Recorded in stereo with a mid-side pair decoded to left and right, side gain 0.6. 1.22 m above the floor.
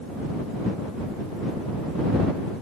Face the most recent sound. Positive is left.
No sound to turn to.